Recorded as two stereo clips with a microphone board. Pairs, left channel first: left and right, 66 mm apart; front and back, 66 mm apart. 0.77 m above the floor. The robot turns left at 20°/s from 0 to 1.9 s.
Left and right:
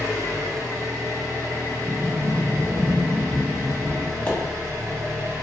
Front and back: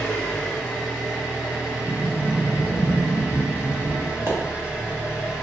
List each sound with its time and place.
0.0 s an engine running: 70° right, 1.8 m; by 5.4 s 110° right, 1.8 m
1.8 s a sliding door: 65° right, 1.4 m
4.3 s a pop: 145° left, 0.9 m